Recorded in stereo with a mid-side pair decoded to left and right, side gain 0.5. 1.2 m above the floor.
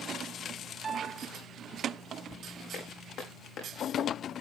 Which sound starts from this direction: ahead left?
Footsteps, at 2.7 s.